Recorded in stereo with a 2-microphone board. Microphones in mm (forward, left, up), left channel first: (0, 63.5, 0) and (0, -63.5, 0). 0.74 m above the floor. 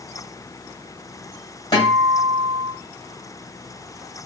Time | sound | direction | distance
1.7 | a guitar | 40° left (ahead or behind) | 3 m